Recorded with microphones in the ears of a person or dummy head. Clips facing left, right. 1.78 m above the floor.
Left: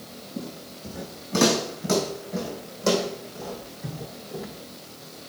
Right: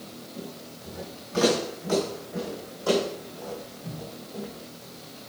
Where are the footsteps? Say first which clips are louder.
Left 5 dB; 50° left (ahead or behind), 5 m; by 4.5 s 70° left (ahead or behind), 5 m.